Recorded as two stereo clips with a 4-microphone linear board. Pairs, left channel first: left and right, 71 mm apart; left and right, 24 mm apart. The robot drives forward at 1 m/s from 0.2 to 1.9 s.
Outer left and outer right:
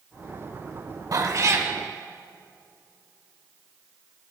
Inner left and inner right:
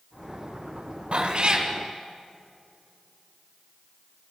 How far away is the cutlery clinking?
No cutlery clinking in this recording.